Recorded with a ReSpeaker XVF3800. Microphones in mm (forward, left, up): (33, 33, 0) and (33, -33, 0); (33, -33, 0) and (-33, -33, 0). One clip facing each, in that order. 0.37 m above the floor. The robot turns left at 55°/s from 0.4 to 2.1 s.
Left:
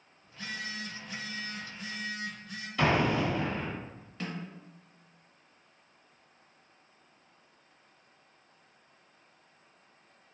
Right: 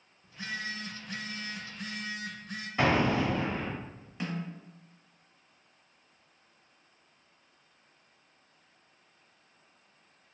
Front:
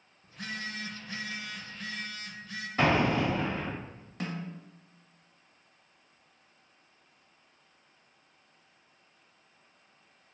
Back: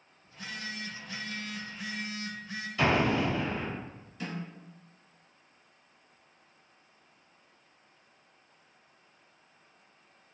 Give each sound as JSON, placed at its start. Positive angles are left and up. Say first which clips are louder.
{"t": 0.2, "sound": "a phone buzzing", "louder": "right 2 dB, front 2 dB", "azimuth_deg": -25, "distance_m": 0.5}
{"t": 2.8, "sound": "an explosion", "louder": "right 1 dB, front 1 dB", "azimuth_deg": -35, "distance_m": 1.6}
{"t": 4.2, "sound": "a snare drum", "louder": "right 3 dB, front 1 dB", "azimuth_deg": -15, "distance_m": 0.8}